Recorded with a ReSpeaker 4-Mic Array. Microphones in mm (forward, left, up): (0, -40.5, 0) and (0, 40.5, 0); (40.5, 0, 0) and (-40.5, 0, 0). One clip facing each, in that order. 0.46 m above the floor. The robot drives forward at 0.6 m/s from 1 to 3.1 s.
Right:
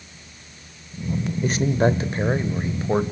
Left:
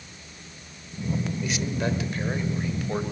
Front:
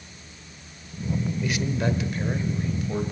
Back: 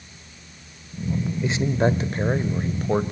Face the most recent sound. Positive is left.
turn(degrees=-150)